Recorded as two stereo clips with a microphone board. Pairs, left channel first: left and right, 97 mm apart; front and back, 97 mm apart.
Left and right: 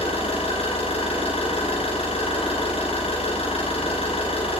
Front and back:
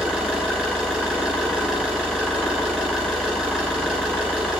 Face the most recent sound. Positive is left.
turn(degrees=95)